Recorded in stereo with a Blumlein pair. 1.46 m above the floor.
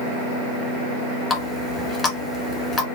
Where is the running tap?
20° left, 1.6 m.